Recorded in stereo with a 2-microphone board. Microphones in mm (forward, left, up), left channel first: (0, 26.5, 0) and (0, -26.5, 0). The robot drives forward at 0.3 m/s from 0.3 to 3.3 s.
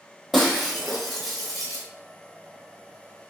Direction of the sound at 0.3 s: Centre (ahead or behind).